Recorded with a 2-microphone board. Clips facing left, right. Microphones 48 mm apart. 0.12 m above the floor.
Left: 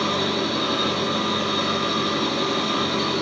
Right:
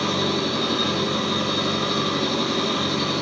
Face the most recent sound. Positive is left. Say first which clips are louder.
# even
turn(degrees=5)  # may be behind; listen again after turning